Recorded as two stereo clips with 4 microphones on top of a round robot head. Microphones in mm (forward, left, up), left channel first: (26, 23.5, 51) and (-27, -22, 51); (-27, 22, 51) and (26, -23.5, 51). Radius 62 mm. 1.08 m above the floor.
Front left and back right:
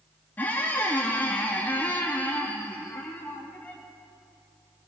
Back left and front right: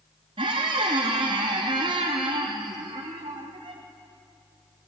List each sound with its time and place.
0.4 s a squeak: 25° right, 0.7 m